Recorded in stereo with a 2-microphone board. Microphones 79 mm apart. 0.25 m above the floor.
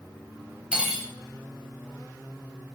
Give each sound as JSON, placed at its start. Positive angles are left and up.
{"t": 0.7, "sound": "cutlery clinking", "side_deg": -10, "distance_m": 0.6}